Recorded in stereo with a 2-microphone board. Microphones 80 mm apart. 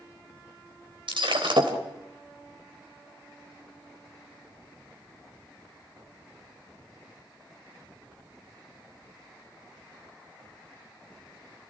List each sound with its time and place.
1.1 s breaking glass: 80° right, 3.5 m